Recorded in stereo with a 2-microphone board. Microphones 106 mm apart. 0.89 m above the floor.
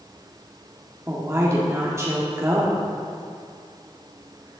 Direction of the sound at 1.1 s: 30° right (ahead or behind).